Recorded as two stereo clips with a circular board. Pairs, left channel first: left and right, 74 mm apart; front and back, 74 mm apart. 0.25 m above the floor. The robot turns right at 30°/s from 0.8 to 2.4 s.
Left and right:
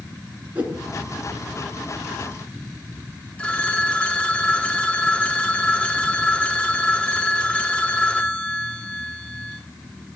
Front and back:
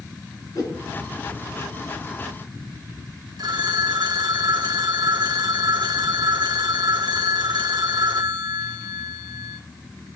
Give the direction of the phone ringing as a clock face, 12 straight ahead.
7 o'clock.